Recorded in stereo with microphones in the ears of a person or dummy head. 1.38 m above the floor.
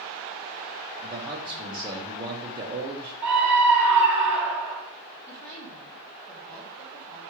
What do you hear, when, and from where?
1.0 s a man speaking: 20° right (ahead or behind), 0.9 m
3.2 s a scream: 10° right (ahead or behind), 1.3 m
5.3 s a woman speaking: 10° left (ahead or behind), 1.1 m